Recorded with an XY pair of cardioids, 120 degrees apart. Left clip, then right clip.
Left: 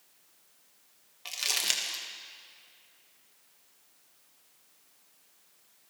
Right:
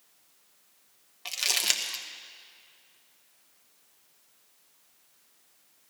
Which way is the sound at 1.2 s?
20° right.